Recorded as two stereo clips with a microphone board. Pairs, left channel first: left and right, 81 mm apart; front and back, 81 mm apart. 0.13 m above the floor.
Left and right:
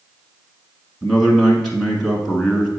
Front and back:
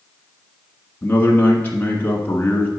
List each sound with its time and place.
1.0 s a man speaking: 10° left, 1.3 m